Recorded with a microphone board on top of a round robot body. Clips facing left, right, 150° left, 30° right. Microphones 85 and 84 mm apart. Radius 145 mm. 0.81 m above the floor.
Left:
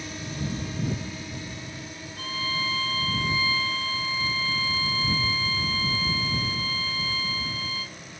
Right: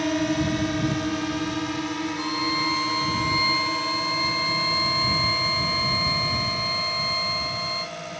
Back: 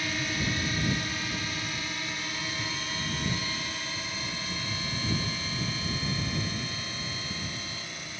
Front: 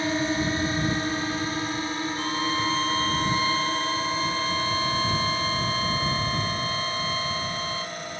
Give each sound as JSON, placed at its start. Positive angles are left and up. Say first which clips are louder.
{"t": 0.0, "sound": "a drone", "louder": "right 12 dB, front 7 dB", "azimuth_deg": -85}
{"t": 2.2, "sound": "a violin", "louder": "right 2 dB, front 9 dB", "azimuth_deg": -20}